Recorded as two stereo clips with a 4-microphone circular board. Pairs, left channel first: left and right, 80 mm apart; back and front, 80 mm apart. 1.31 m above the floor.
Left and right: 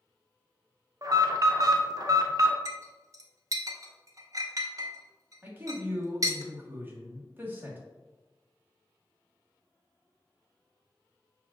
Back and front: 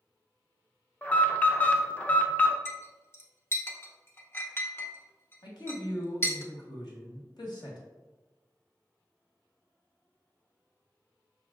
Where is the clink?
130° right, 0.6 m.